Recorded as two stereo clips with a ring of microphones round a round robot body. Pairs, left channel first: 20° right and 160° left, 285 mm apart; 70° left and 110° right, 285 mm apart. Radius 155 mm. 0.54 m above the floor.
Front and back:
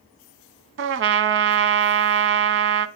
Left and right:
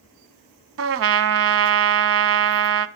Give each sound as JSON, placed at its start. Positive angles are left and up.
{"t": 0.8, "sound": "a trumpet", "azimuth_deg": -155, "distance_m": 0.7}